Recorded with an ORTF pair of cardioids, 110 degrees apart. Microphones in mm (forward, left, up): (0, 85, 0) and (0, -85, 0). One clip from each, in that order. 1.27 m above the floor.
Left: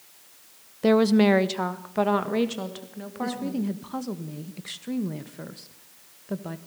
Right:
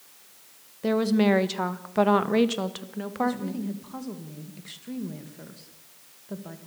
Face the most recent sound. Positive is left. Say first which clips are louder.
# right 1 dB
turn(degrees=35)